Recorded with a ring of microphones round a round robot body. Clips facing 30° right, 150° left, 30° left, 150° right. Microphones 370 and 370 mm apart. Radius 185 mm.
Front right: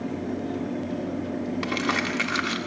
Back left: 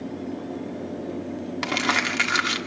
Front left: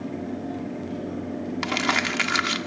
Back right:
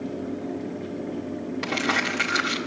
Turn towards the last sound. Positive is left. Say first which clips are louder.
# front right 1 dB, even
turn(degrees=85)